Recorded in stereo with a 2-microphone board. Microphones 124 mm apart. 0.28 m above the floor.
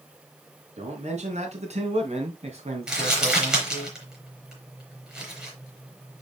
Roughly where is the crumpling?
Centre.